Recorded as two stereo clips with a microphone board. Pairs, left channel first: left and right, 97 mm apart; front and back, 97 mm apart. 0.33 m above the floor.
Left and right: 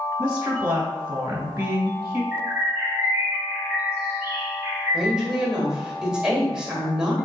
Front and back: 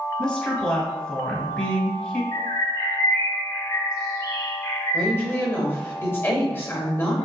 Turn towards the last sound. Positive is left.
turn(degrees=-20)